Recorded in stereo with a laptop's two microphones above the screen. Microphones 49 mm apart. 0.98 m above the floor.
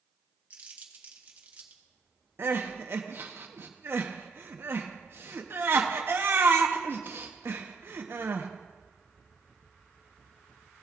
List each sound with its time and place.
0.5 s crumpling: 35° right (ahead or behind), 1.4 m
2.4 s crying: 55° right (ahead or behind), 0.9 m